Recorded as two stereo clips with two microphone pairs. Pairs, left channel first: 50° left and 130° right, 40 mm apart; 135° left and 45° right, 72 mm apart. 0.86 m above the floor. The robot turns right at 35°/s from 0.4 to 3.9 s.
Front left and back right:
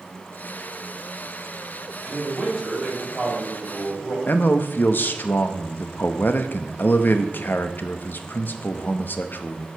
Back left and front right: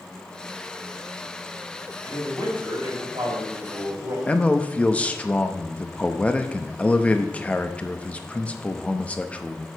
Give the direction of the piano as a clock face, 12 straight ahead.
No piano in this recording.